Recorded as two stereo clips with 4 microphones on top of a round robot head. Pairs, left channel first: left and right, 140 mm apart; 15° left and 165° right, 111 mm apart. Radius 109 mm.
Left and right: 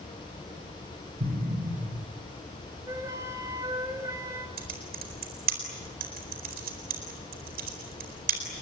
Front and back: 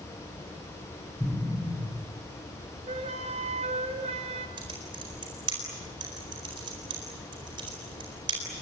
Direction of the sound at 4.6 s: 110° right.